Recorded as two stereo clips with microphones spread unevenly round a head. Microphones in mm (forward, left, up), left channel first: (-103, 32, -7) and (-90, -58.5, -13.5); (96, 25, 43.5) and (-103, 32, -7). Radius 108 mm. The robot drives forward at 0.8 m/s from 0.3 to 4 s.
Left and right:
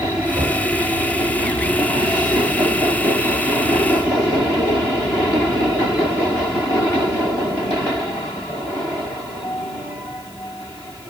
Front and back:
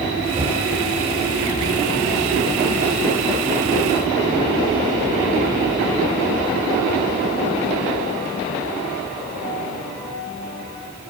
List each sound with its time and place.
0.3 s knocking: 115° right, 5 m; by 0.7 s 120° right, 5 m